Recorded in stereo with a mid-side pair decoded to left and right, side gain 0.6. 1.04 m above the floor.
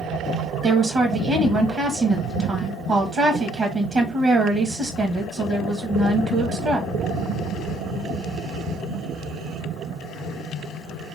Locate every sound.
0.6 s a woman speaking: 40° right, 1.1 m